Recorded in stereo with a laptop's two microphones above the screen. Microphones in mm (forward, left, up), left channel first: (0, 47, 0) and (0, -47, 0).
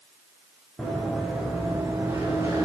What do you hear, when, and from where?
0.8 s running footsteps: centre (ahead or behind), 5 m; by 2.6 s 35° right (ahead or behind), 4 m